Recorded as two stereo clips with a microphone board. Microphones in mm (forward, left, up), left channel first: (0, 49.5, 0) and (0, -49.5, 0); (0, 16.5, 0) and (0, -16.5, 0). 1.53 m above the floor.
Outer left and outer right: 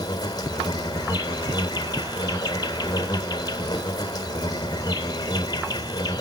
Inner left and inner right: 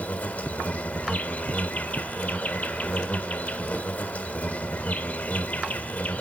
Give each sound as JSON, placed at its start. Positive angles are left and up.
{"t": 0.0, "sound": "an insect", "side_deg": 40, "distance_m": 1.4}